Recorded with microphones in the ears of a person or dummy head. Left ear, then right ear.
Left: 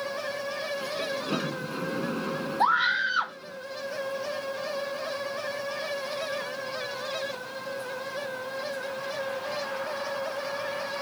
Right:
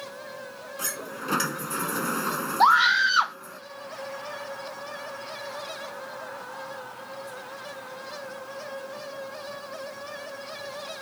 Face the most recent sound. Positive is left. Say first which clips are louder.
# right 5 dB
turn(degrees=-30)  # may be behind; listen again after turning